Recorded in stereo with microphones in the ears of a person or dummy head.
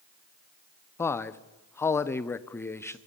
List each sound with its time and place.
1.0 s a man speaking: 15° left (ahead or behind), 0.8 m